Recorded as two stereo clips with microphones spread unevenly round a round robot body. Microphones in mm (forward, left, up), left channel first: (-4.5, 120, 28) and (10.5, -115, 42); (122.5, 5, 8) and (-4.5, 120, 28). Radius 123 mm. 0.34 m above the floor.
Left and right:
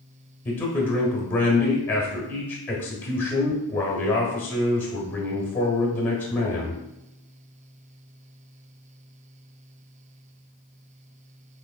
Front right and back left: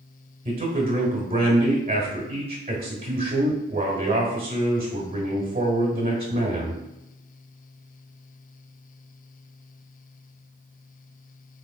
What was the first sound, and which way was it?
A man speaking, 160° left.